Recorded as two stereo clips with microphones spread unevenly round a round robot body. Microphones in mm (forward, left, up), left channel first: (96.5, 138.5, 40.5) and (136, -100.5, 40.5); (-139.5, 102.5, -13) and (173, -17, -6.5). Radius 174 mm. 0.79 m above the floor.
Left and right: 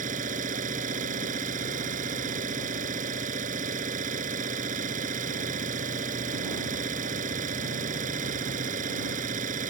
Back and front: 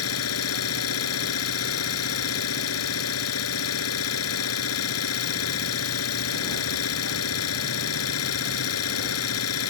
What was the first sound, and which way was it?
An engine running, 150° right.